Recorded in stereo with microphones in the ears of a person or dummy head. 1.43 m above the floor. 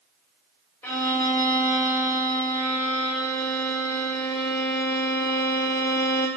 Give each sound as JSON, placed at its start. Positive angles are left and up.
{"t": 0.8, "sound": "a violin", "side_deg": 10, "distance_m": 1.0}